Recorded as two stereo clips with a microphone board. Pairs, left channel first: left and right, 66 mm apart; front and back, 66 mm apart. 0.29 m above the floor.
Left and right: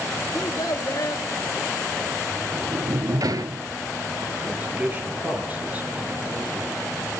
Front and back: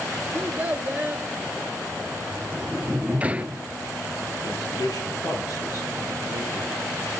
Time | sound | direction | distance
0.3 | a child speaking | 115° left | 3 m
2.3 | a sliding door | 110° right | 0.8 m
4.4 | a man speaking | 20° right | 5.5 m